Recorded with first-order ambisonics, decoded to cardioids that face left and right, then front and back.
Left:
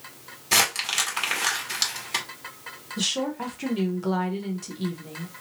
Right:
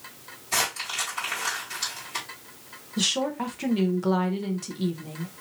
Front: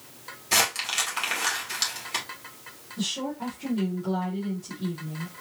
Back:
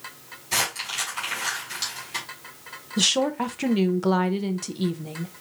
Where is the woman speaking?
170° right, 0.7 m.